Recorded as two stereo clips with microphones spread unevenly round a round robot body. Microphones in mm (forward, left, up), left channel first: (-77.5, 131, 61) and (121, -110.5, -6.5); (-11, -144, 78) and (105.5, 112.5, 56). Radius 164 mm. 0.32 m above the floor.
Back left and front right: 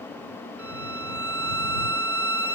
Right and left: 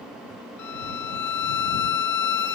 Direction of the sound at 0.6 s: 130° right.